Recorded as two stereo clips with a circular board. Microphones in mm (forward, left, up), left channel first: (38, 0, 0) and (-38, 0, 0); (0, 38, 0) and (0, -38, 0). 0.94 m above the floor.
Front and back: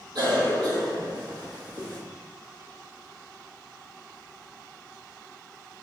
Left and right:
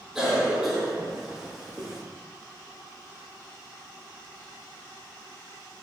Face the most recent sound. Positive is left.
turn(degrees=-175)